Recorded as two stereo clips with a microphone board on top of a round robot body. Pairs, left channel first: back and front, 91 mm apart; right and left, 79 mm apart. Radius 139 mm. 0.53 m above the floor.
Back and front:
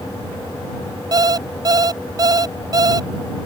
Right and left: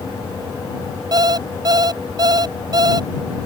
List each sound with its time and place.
1.1 s an alarm clock: 50° left